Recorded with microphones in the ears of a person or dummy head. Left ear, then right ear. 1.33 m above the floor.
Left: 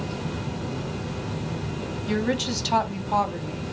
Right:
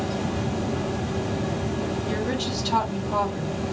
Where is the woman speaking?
60° left (ahead or behind), 0.7 m.